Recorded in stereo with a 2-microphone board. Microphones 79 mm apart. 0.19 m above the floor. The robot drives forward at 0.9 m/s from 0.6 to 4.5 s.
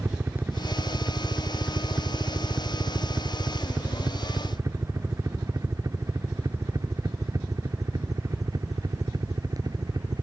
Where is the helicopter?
25° right (ahead or behind); by 10.2 s 45° right (ahead or behind).